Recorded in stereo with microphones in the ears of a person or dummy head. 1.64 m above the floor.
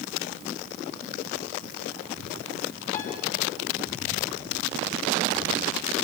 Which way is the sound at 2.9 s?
55° left (ahead or behind).